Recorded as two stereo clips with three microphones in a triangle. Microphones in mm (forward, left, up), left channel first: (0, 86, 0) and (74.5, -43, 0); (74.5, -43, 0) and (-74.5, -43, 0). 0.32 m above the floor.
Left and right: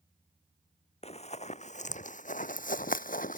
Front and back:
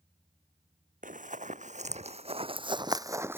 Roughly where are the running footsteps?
Behind.